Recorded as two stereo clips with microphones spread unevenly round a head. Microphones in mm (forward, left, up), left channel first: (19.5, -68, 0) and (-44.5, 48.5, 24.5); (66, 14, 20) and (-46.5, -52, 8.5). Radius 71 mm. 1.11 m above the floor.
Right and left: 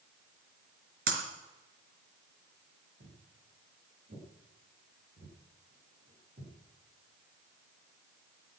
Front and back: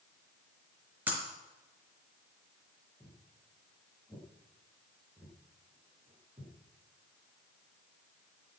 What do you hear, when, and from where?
1.1 s breaking glass: 130° left, 3.5 m
3.0 s footsteps: 120° left, 9.5 m; by 6.5 s 150° left, 10.5 m